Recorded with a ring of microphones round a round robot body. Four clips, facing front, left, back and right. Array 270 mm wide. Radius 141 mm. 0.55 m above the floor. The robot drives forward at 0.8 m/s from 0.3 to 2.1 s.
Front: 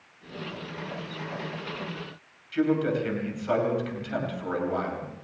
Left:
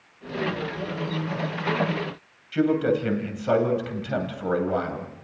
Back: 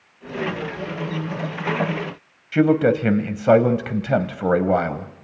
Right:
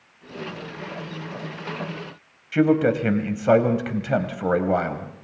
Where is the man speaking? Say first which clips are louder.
Right 3 dB, back 8 dB; 160° right, 3 m.